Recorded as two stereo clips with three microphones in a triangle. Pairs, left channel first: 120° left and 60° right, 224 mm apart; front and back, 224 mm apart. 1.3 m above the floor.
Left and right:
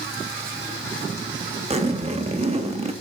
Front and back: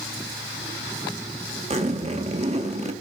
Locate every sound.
1.7 s a zipper: 125° right, 0.8 m